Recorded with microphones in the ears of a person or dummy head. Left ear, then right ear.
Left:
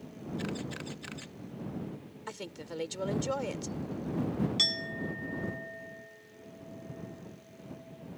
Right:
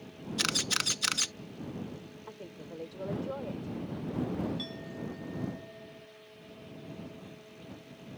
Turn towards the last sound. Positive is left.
turn(degrees=85)